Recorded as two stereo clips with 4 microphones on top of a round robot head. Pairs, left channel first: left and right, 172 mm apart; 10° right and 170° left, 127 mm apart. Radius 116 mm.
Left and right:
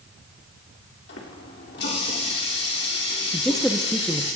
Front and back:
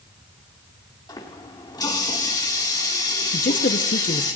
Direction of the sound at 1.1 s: 50° left.